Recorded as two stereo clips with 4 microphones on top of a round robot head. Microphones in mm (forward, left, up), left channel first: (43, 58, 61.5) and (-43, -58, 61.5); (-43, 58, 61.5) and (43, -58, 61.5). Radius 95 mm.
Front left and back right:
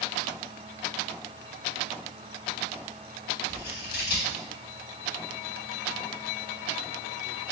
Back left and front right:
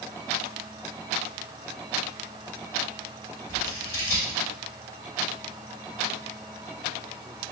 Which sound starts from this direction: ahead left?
Scissors, at 3.5 s.